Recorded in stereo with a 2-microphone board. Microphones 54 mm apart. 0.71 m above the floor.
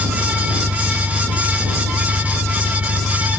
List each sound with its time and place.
0.0 s an engine running: 85° right